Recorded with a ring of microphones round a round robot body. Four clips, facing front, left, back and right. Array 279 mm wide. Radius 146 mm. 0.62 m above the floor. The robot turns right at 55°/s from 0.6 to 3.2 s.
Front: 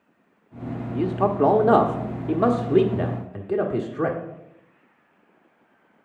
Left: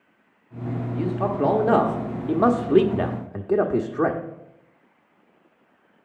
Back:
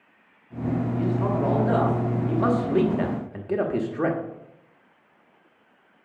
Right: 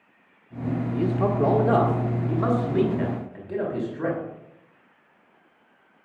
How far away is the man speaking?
About 1.1 m.